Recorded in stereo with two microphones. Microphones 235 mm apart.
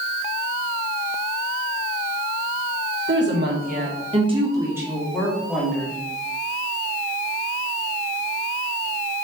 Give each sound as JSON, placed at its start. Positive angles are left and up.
{"t": 3.1, "sound": "a woman speaking", "side_deg": -55, "distance_m": 1.3}